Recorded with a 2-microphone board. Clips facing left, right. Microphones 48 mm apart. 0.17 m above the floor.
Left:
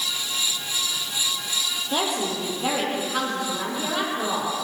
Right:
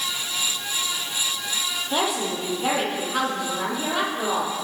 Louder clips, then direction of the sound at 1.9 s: Right 1 dB; 5° right (ahead or behind).